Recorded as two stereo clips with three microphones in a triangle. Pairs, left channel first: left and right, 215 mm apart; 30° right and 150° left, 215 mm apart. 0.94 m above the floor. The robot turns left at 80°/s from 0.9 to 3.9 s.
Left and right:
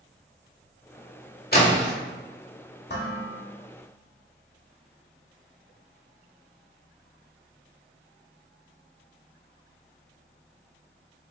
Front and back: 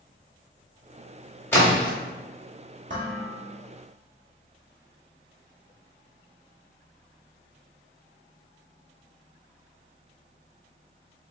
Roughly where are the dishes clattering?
Behind left.